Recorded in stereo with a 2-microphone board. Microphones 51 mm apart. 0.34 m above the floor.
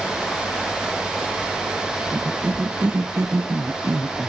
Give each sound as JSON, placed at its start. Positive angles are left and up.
{"t": 2.1, "sound": "a cough", "side_deg": -50}